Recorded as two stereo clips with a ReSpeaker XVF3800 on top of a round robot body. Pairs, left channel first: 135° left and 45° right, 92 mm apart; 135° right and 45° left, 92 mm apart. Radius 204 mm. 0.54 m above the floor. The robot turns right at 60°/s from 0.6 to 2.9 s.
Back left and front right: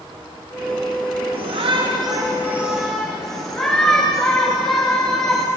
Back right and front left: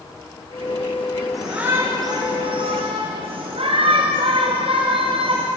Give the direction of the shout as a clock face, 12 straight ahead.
1 o'clock.